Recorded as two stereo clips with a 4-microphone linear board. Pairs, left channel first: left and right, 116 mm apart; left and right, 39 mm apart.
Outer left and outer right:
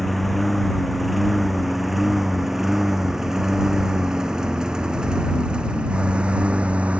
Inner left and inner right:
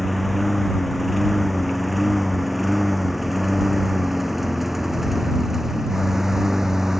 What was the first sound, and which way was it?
A lawn mower, centre (ahead or behind).